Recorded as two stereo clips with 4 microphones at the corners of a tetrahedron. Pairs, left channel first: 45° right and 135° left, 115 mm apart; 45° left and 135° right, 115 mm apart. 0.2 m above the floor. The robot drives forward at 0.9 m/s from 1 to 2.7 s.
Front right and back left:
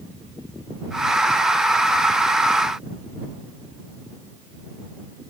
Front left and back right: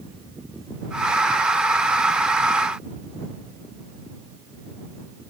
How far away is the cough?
I don't hear a cough.